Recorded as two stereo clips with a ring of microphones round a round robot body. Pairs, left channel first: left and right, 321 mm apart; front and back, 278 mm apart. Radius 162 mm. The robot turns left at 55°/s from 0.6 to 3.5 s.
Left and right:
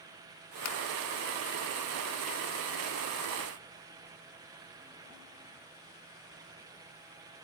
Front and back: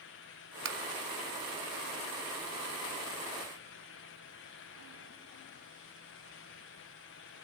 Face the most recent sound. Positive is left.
turn(degrees=-20)